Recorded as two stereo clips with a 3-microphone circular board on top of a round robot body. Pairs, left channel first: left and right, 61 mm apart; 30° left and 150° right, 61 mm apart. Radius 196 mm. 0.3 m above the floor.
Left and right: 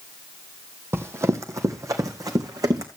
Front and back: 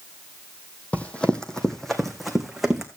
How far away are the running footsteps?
About 1.1 m.